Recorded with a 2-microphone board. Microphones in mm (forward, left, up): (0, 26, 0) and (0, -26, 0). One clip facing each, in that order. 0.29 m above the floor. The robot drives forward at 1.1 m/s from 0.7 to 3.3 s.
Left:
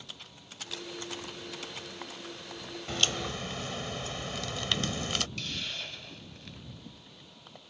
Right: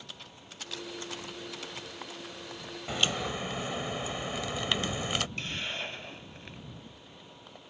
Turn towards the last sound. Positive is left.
turn(degrees=-25)  # may be behind; listen again after turning